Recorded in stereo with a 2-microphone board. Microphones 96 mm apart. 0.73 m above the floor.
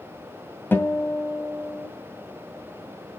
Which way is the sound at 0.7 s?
20° left (ahead or behind).